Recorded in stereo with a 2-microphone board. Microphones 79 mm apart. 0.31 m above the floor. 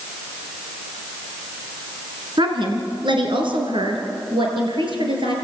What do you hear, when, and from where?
2.4 s a woman speaking: 75° right (ahead or behind), 3.5 m; by 5.3 s 80° right, 6 m